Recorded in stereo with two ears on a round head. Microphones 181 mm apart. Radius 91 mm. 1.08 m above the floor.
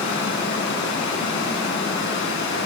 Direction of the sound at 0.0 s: 65° left (ahead or behind).